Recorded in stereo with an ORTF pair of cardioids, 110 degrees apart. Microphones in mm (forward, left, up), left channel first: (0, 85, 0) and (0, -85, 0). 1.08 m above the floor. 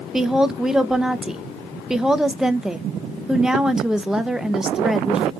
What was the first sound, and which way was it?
A woman speaking, 5° right.